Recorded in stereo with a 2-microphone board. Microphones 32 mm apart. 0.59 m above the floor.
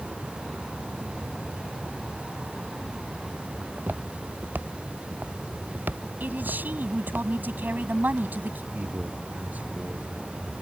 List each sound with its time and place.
3.6 s footsteps: 70° right (ahead or behind); by 7.2 s 80° right
6.2 s a man speaking: 65° right (ahead or behind)
8.7 s a man speaking: 50° right (ahead or behind)